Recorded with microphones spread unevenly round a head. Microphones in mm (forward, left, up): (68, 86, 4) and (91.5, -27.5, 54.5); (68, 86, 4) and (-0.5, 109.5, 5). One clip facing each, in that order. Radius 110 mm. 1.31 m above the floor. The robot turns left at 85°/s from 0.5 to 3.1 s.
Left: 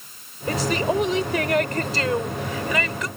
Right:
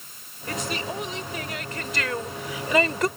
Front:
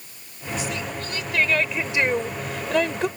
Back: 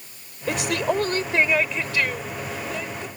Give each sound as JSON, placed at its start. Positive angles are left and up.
{"t": 0.5, "sound": "a woman speaking", "azimuth_deg": 175}